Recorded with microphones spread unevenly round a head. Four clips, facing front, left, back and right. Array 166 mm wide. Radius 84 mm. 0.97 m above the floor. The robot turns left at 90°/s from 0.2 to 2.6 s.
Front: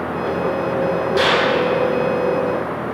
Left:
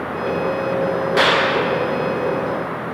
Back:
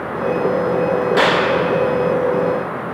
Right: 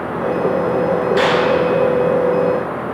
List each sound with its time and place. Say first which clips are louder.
1.2 s a clap: even, back 1 dB; 140° left, 5.5 m; by 1.4 s 115° left, 5.5 m